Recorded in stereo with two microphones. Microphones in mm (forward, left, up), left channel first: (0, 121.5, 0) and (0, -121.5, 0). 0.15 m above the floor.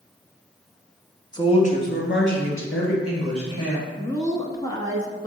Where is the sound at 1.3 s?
15° left (ahead or behind), 1.3 m; by 3.9 s 75° left (ahead or behind), 4 m.